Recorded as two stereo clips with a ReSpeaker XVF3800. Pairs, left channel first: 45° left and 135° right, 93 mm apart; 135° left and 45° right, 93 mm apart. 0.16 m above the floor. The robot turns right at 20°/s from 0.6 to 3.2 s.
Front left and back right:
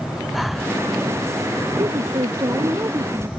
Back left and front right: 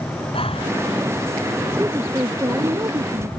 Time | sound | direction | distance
0.3 | breathing | 135° left | ?
1.8 | a woman speaking | 110° right | ?